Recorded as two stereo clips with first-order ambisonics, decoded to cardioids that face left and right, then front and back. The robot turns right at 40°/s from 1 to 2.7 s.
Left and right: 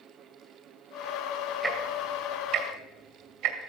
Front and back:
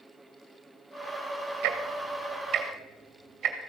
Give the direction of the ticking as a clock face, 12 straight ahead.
5 o'clock.